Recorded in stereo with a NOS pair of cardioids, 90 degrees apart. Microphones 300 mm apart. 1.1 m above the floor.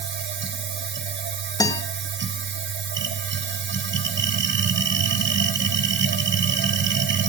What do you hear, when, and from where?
0.0 s a machine running: 40° right, 1.4 m
1.6 s a guitar: 15° left, 2 m